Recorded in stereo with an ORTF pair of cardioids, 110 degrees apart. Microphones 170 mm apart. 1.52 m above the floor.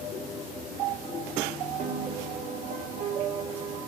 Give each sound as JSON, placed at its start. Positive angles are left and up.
{"t": 1.8, "sound": "a piano", "azimuth_deg": -55, "distance_m": 3.5}